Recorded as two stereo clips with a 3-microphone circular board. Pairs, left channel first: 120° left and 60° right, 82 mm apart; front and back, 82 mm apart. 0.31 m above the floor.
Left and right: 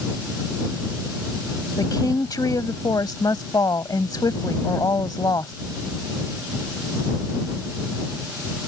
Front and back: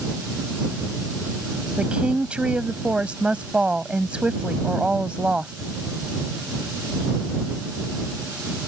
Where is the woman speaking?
105° left.